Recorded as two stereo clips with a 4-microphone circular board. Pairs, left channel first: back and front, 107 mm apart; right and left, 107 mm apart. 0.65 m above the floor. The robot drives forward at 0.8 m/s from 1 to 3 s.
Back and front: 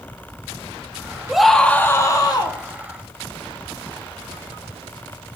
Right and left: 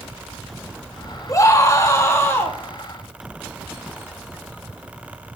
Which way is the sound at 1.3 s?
80° right.